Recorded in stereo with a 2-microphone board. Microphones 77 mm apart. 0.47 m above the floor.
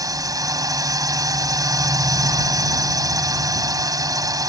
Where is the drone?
45° right (ahead or behind).